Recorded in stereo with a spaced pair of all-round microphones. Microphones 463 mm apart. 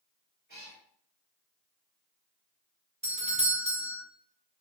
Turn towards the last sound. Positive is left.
turn(degrees=-15)  # may be behind; listen again after turning